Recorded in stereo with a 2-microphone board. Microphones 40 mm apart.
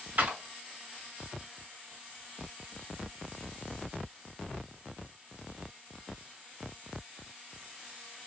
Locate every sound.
0.2 s a clap: 50° right (ahead or behind), 2 m